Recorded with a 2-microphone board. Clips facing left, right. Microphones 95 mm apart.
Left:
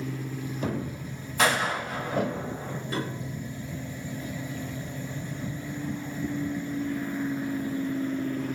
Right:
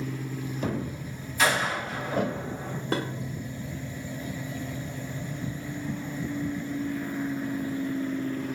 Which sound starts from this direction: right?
Dishes clattering, at 2.9 s.